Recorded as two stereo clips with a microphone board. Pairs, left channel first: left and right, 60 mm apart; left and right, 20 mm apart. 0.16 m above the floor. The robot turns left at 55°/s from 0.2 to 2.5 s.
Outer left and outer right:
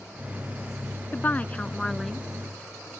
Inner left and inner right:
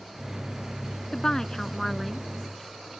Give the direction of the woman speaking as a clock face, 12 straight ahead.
10 o'clock.